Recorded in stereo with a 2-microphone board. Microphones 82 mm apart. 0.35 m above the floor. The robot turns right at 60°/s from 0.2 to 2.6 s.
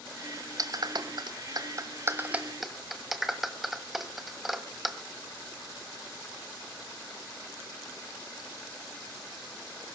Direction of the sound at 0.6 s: 50° right (ahead or behind).